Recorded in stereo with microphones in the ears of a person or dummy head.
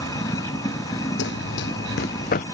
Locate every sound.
0.0 s running water: 15° left (ahead or behind)
1.2 s running footsteps: 55° left (ahead or behind); by 2.5 s 40° left (ahead or behind)